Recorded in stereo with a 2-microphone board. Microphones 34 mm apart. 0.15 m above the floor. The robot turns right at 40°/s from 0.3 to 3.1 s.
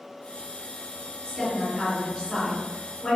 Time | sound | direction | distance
1.2 | a woman speaking | 15° left (ahead or behind) | 1.8 m